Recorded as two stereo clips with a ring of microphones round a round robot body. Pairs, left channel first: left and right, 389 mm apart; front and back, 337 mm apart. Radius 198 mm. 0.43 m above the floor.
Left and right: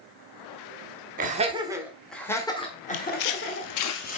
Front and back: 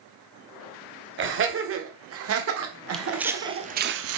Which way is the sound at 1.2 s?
145° right.